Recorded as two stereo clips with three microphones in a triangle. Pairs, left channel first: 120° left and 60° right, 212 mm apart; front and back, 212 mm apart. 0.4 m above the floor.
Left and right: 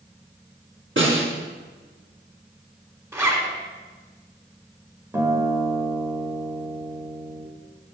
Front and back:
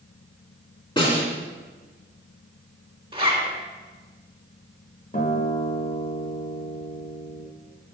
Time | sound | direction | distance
1.0 | a snare drum | 65° right | 2.5 m
3.1 | a zipper | 130° right | 1.2 m
5.1 | a guitar | 10° left | 1.3 m